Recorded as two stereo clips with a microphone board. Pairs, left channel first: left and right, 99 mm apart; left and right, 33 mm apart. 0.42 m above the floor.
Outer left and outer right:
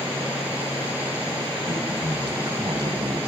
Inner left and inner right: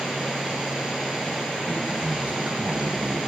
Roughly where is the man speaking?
Right.